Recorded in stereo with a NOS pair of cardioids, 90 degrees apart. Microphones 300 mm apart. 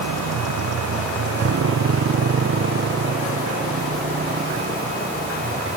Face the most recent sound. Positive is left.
turn(degrees=-30)